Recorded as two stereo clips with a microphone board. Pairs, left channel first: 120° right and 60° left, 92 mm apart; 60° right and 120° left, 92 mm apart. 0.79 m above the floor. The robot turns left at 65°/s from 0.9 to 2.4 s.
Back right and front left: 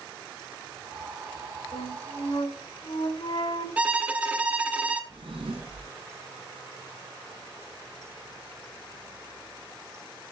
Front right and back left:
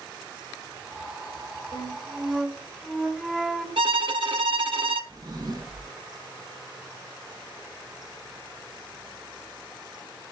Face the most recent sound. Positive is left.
turn(degrees=80)